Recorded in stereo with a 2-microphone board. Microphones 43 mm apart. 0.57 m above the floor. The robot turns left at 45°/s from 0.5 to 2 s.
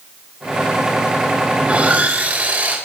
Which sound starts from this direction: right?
Sawing, at 1.6 s.